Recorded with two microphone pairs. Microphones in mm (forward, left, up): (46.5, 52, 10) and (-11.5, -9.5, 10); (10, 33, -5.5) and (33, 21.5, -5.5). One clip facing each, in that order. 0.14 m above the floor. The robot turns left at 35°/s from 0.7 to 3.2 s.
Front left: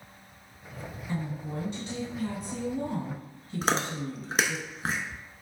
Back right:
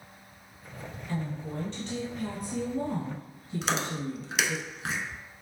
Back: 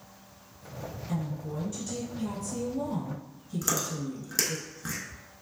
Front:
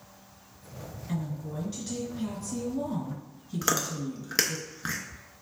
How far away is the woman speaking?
About 1.9 m.